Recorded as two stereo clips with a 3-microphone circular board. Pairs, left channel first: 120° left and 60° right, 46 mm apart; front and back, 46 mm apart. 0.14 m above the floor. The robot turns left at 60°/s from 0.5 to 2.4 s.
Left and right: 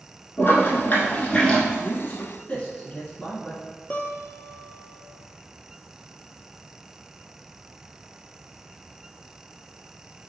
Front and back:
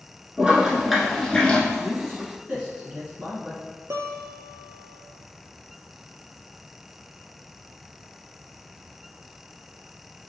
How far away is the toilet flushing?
About 0.9 m.